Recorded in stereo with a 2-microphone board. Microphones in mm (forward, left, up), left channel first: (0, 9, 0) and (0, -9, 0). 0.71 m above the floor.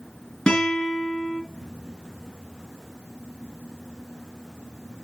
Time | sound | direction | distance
0.5 | a guitar | 65° left (ahead or behind) | 4 m